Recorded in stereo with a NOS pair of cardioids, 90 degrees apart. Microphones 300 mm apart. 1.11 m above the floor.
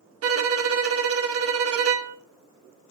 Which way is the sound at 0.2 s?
55° right.